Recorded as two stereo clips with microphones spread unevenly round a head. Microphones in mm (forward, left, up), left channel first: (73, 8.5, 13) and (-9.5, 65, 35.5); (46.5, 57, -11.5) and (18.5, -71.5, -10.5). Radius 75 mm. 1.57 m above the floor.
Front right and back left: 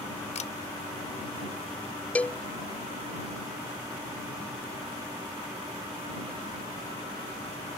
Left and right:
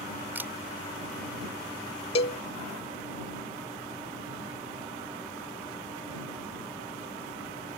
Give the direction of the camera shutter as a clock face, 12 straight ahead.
1 o'clock.